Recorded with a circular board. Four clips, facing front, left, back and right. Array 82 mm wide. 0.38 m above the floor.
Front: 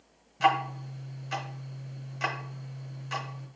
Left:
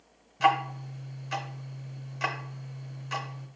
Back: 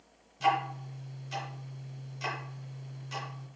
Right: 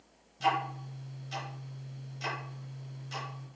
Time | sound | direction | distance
0.4 | ticking | 45° left | 0.7 m